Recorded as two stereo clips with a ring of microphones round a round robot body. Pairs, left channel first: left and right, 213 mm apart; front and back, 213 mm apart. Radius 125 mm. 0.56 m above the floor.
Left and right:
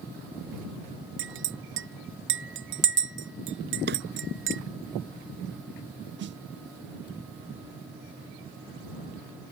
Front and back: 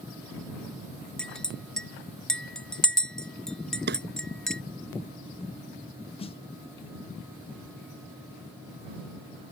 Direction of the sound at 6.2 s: 65° right.